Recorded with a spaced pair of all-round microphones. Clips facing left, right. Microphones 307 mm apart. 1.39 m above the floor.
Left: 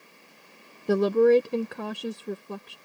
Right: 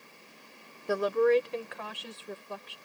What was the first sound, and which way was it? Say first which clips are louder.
A woman speaking: left 6 dB; 50° left (ahead or behind).